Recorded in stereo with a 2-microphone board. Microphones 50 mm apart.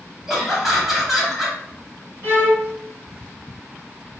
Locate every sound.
0.3 s laughter: 5° right (ahead or behind), 1.2 m
2.2 s a violin: 40° right (ahead or behind), 1.9 m